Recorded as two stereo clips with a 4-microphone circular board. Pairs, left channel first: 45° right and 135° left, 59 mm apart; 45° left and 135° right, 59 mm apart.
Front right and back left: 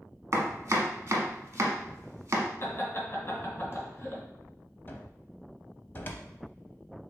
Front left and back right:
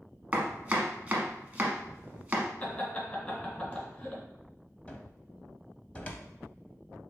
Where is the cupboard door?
10° right, 0.6 m.